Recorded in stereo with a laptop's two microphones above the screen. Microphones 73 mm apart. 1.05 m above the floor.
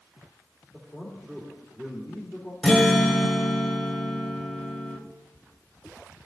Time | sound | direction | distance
0.7 | a man speaking | 25° right (ahead or behind) | 3 m
2.6 | a guitar | centre (ahead or behind) | 1.9 m